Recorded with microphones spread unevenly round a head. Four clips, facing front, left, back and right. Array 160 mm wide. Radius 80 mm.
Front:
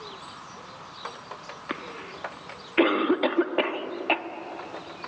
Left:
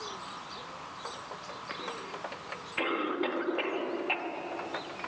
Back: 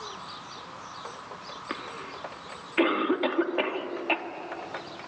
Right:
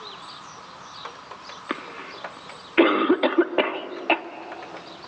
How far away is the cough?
About 1.5 m.